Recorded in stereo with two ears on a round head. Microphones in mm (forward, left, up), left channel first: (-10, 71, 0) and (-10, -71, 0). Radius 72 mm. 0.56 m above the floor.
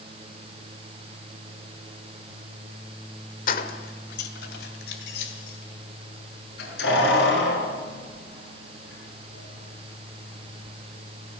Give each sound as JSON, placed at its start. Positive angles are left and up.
{"t": 3.5, "sound": "keys jangling", "side_deg": 55, "distance_m": 1.5}